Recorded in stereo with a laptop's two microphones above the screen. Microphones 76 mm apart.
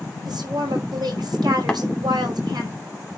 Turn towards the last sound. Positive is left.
turn(degrees=10)  # may be behind; listen again after turning